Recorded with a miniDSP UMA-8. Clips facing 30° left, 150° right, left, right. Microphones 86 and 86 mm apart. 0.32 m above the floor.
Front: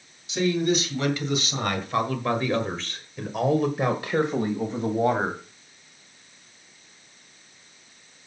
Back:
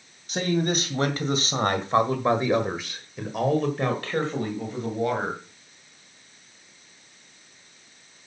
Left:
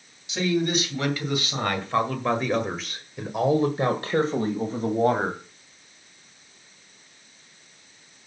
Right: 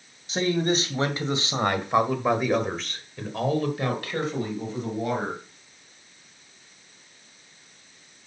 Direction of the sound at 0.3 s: 125° right.